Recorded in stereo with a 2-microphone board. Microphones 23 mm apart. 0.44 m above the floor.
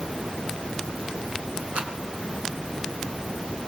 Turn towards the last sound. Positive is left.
turn(degrees=-65)  # may be behind; listen again after turning